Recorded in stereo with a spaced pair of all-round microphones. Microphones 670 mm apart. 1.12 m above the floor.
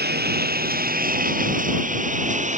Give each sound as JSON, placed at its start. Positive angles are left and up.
{"t": 0.0, "sound": "a lawn mower", "side_deg": -15}